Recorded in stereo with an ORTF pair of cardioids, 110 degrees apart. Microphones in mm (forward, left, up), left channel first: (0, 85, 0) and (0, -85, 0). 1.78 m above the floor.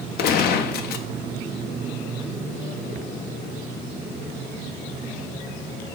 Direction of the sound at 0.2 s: 70° left.